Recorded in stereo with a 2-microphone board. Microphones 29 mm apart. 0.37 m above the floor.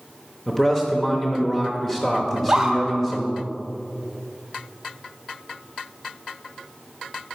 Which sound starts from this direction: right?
A scream, at 2.3 s.